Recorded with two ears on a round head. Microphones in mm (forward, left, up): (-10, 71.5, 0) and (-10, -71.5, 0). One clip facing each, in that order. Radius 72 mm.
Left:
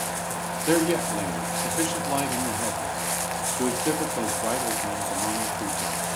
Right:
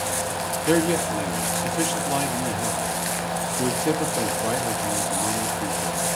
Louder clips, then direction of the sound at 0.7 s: Right 1 dB; centre (ahead or behind).